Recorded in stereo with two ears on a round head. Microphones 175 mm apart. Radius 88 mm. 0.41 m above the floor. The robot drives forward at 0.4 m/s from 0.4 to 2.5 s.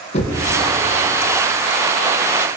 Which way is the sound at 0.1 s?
35° left (ahead or behind).